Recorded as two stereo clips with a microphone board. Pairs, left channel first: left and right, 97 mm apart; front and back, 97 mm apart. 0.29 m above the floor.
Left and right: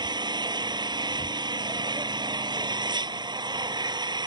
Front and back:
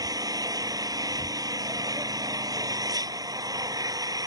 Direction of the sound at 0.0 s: 130° right.